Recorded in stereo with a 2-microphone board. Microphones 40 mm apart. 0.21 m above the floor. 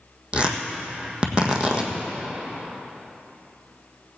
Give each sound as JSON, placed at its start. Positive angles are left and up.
{"t": 0.3, "sound": "tearing paper", "side_deg": -30, "distance_m": 1.5}